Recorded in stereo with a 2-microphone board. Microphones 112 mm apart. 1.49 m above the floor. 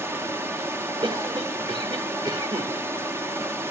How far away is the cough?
About 1.7 m.